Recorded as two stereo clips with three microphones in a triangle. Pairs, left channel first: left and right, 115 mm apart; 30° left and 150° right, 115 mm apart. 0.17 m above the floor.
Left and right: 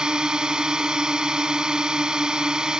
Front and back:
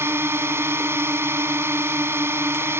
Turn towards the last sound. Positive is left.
turn(degrees=-165)